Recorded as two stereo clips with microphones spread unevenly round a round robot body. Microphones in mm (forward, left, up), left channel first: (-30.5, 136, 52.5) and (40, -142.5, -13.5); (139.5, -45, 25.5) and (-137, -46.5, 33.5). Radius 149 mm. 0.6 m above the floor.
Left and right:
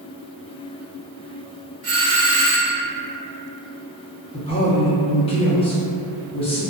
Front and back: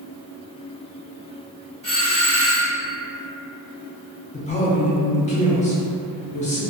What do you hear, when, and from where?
1.8 s a doorbell: 55° right, 1.3 m
4.3 s a man speaking: 25° left, 0.6 m